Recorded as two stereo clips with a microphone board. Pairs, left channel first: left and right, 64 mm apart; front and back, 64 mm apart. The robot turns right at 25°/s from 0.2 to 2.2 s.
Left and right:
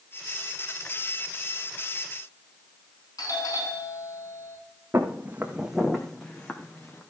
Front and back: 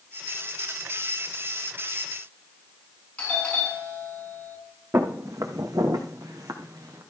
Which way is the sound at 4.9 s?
145° right.